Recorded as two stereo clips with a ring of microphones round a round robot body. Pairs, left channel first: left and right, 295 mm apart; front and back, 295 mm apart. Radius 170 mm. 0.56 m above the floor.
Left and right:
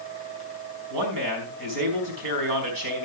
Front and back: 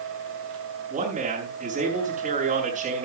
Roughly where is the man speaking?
Right.